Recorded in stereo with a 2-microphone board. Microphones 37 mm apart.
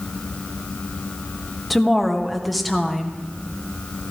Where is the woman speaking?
Centre (ahead or behind), 1.6 m.